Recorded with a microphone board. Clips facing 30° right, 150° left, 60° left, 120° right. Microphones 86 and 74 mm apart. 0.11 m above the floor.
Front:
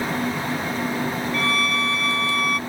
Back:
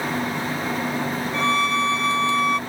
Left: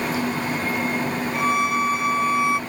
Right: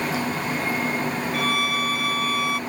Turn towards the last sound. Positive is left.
turn(degrees=105)